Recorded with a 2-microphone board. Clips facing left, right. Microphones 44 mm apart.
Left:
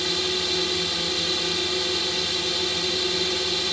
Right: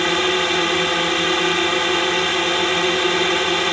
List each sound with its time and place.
0.0 s a drone: 45° right (ahead or behind)